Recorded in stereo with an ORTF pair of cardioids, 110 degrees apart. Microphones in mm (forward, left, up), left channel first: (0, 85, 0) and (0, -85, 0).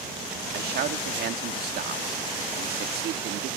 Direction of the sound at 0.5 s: 65° right.